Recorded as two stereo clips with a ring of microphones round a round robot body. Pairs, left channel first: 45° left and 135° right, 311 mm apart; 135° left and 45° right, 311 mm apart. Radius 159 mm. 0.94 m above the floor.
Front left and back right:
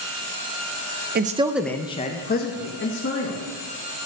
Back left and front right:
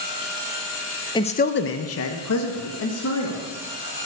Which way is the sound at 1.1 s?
160° right.